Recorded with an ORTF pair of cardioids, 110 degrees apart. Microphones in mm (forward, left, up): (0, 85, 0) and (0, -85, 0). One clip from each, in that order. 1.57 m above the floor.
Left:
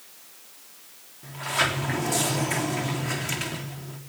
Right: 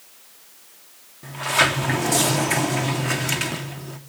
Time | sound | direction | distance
1.2 | a sliding door | 35° right | 3.5 m